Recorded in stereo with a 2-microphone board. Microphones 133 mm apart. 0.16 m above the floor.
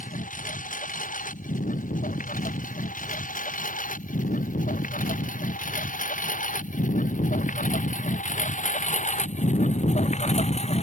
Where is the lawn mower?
80° left; by 10.8 s 55° left (ahead or behind).